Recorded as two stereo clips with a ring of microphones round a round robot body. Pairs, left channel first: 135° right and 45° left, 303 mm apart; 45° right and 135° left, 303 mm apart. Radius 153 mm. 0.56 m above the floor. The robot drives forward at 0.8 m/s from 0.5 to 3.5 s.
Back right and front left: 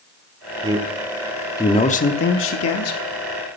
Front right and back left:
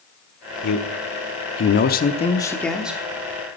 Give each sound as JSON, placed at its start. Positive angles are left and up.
{"t": 0.6, "sound": "a man speaking", "azimuth_deg": -30, "distance_m": 1.4}